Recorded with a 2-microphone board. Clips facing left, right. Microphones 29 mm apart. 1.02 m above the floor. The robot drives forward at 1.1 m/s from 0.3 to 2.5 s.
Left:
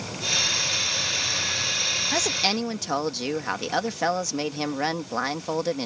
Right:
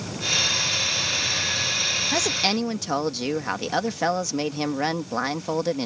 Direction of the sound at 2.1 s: Centre (ahead or behind).